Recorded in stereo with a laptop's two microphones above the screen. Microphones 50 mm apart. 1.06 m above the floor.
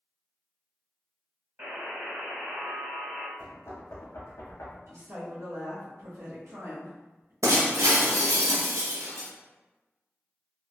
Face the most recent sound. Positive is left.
turn(degrees=-75)  # may be behind; listen again after turning